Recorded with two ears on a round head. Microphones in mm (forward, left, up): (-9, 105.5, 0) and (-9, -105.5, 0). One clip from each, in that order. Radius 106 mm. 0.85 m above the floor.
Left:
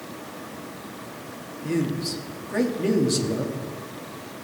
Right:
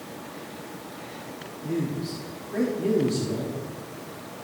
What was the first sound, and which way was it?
A man speaking, 50° left (ahead or behind).